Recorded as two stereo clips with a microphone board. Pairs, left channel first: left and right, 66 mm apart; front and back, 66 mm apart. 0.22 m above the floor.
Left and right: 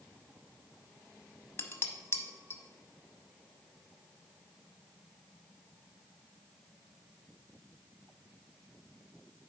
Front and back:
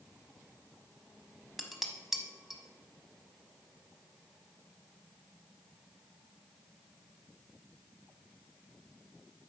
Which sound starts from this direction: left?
Dishes clattering, at 1.6 s.